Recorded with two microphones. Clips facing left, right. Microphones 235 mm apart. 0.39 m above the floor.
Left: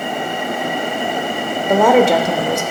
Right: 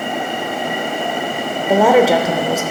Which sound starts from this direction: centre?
A woman speaking, at 1.7 s.